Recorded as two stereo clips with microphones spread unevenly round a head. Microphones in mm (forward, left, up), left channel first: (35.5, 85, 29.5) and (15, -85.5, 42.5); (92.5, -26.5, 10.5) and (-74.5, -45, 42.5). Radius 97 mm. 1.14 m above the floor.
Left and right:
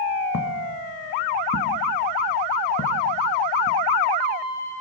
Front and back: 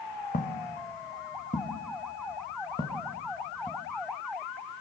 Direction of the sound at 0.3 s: 65° left.